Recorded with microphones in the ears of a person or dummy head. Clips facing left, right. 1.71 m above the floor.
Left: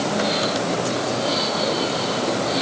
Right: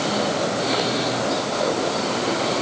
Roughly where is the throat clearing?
I don't hear throat clearing.